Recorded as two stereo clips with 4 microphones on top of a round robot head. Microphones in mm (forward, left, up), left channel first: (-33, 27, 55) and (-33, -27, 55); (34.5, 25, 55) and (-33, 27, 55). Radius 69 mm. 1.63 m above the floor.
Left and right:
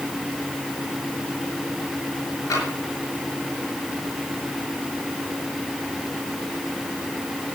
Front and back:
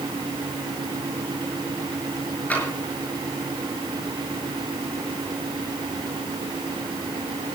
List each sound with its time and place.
2.5 s tapping: 65° left, 6.5 m